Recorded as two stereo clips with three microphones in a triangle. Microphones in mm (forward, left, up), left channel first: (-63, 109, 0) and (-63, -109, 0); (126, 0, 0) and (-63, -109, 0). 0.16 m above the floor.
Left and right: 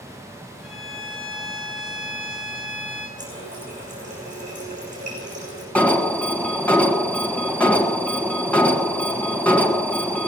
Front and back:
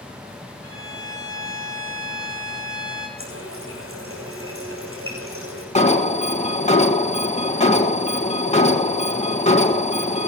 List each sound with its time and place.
0.6 s a violin: straight behind, 3 m
3.2 s a running tap: 145° right, 6.5 m
5.8 s an alarm: 15° left, 1.5 m